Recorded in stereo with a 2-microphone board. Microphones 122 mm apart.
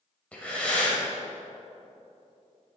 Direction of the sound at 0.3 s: 10° left (ahead or behind).